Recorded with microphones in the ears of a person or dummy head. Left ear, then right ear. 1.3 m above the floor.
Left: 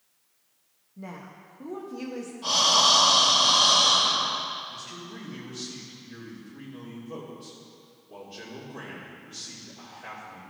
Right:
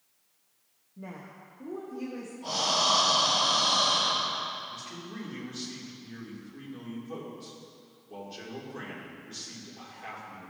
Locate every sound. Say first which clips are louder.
1.0 s a woman speaking: left 2 dB; 5° left (ahead or behind), 0.6 m; by 2.3 s 45° left (ahead or behind), 1.2 m
2.4 s breathing: left 6 dB; 45° left (ahead or behind), 2 m
4.7 s a man speaking: left 2 dB; 15° right (ahead or behind), 3 m